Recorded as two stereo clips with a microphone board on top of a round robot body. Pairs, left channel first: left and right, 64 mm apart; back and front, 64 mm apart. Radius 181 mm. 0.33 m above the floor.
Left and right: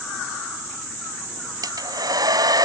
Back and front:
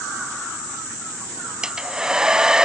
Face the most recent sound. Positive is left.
turn(degrees=-80)